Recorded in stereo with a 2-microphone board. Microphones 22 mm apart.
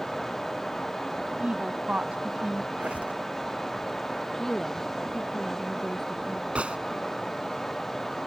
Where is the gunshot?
65° right (ahead or behind).